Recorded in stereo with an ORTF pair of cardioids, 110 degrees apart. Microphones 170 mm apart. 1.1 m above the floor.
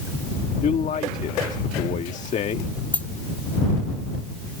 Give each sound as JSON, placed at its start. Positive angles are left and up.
{"t": 0.6, "sound": "a man speaking", "azimuth_deg": 45}
{"t": 2.9, "sound": "a dropped coin", "azimuth_deg": 10}